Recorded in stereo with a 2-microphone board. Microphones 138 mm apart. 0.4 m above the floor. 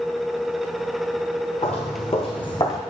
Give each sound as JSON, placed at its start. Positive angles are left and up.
{"t": 1.6, "sound": "footsteps", "side_deg": 55, "distance_m": 1.9}